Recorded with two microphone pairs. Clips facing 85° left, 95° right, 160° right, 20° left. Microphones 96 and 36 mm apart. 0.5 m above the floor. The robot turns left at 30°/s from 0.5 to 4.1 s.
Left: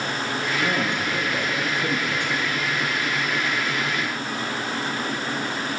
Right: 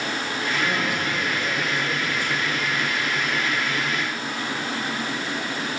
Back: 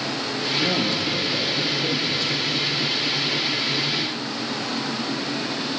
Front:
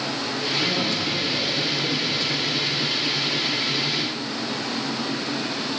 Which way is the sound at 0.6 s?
160° left.